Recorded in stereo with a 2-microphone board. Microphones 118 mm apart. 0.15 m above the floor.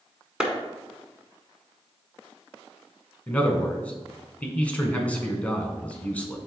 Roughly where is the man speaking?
Centre.